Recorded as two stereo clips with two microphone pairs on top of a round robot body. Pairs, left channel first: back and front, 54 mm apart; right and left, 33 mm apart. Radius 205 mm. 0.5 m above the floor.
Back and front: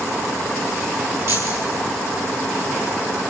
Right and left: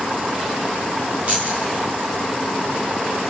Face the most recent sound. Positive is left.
turn(degrees=35)